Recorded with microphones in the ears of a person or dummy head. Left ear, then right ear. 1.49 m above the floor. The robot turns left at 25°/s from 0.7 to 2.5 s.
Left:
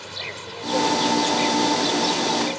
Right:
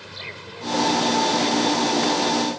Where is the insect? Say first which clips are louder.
Left 3 dB; 150° left; by 2.6 s 105° left.